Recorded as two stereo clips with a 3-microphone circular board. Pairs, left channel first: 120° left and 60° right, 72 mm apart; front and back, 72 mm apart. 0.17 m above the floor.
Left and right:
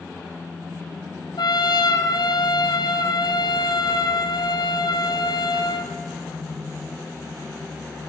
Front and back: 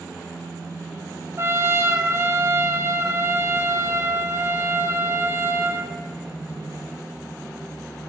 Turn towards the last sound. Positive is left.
turn(degrees=125)